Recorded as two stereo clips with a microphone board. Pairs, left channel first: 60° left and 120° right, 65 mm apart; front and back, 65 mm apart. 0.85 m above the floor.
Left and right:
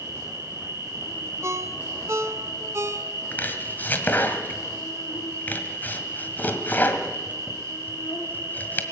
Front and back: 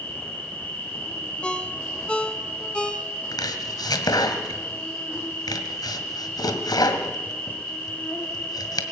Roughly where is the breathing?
I don't hear breathing.